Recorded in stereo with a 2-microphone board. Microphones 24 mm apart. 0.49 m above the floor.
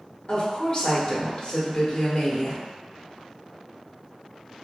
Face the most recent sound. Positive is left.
turn(degrees=35)  # may be behind; listen again after turning